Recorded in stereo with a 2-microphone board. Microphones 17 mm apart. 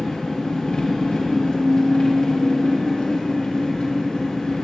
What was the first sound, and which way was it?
An engine running, 70° left (ahead or behind).